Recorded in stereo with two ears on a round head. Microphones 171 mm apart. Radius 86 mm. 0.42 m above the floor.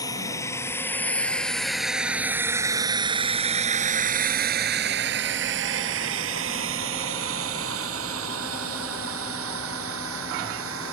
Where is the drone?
20° left (ahead or behind); by 10.9 s 75° right (ahead or behind).